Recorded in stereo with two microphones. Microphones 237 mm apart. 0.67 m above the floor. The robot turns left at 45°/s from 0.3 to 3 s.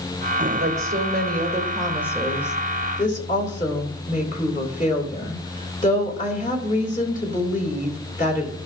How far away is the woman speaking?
About 3 m.